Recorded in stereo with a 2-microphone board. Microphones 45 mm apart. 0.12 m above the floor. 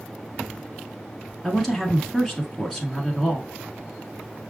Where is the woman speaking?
Centre (ahead or behind), 1.1 m.